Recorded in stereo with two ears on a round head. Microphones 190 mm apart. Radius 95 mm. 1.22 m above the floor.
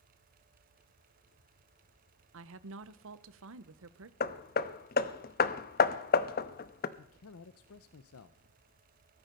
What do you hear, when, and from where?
2.3 s a woman speaking: 65° right (ahead or behind), 0.9 m
4.2 s hammering: 45° left (ahead or behind), 0.8 m
7.0 s a man speaking: 75° left (ahead or behind), 0.7 m